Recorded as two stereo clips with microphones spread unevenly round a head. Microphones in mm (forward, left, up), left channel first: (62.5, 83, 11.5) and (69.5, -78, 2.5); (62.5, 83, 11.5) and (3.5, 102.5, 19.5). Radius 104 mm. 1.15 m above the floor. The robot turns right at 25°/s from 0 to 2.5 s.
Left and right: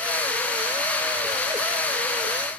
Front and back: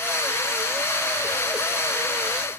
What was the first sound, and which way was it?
Only background noise.